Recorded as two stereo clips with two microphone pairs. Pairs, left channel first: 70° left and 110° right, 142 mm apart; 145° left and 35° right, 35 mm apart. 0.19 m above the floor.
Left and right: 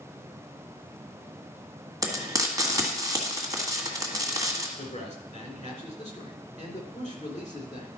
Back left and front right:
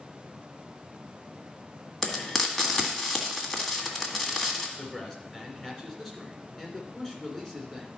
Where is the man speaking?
70° left, 2.5 m.